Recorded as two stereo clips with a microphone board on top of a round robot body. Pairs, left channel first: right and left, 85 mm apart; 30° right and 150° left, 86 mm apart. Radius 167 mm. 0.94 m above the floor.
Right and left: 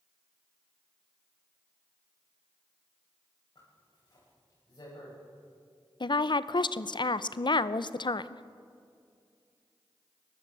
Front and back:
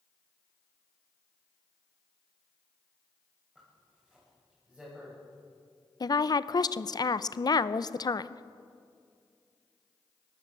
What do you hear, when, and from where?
3.5 s a zipper: 135° right, 8 m
6.0 s a woman speaking: 65° right, 0.8 m